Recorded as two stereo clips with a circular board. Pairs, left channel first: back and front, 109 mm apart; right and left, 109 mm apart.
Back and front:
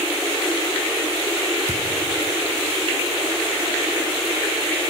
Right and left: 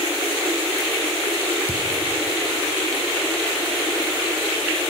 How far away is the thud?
About 4 m.